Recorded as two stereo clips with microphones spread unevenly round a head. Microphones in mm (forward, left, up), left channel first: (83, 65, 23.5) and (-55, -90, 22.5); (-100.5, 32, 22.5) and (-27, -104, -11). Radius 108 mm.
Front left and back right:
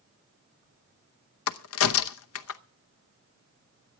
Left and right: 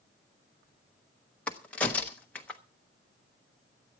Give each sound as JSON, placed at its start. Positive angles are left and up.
{"t": 1.5, "sound": "a crack", "azimuth_deg": 40, "distance_m": 0.8}